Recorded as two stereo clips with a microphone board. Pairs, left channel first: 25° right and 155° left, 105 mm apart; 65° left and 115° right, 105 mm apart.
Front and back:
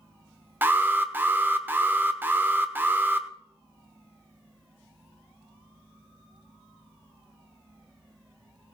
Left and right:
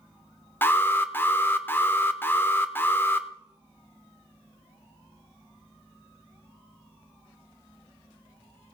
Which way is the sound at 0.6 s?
110° left.